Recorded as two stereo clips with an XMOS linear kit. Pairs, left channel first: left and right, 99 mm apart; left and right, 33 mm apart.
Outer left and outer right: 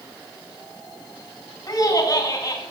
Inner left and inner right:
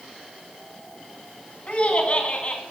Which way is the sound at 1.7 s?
40° left (ahead or behind).